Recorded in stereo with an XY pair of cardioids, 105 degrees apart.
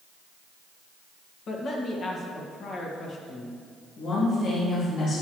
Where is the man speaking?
55° left, 1.9 m.